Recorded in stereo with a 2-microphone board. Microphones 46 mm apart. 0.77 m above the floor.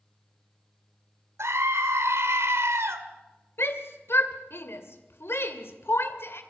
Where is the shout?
60° left (ahead or behind), 2.5 m.